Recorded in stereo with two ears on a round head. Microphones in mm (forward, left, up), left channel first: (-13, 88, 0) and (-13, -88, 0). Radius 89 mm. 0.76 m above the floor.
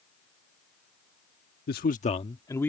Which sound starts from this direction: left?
A man speaking, at 1.7 s.